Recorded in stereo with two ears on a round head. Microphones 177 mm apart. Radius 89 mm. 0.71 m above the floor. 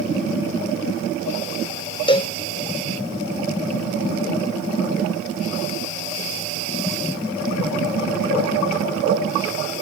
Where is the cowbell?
25° left (ahead or behind), 1.2 m.